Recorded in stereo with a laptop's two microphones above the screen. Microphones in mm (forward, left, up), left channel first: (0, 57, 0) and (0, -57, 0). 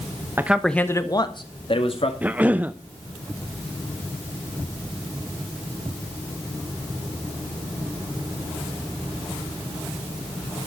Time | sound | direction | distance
0.4 | a man speaking | 20° right (ahead or behind) | 1.0 m
2.2 | a cough | 15° right (ahead or behind) | 0.5 m